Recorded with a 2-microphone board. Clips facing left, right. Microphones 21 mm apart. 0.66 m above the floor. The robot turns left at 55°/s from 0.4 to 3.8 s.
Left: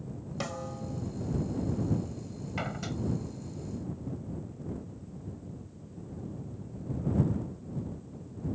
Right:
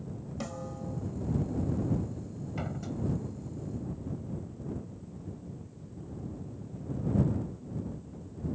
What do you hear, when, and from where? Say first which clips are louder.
0.4 s a snare drum: left 3 dB; 30° left; by 1.0 s 5° right
2.6 s a door slam: left 2 dB; 30° left (ahead or behind); by 3.0 s 55° left (ahead or behind)